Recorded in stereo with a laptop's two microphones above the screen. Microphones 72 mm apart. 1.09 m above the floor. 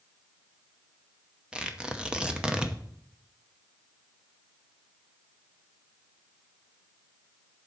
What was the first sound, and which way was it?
Tearing paper, 10° right (ahead or behind).